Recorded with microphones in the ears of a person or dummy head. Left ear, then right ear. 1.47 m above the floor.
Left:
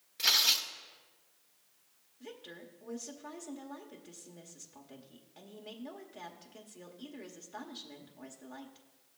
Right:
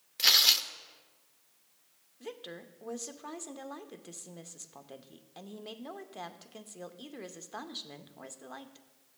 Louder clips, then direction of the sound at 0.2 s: Right 4 dB; 20° right (ahead or behind).